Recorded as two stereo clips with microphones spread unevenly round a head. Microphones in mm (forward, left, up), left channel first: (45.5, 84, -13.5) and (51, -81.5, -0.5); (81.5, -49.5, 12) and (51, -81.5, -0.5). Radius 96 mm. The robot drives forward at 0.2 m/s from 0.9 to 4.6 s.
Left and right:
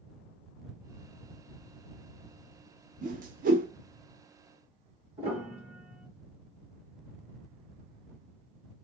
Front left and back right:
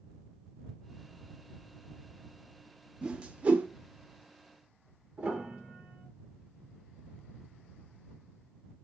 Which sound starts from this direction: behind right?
A piano, at 5.2 s.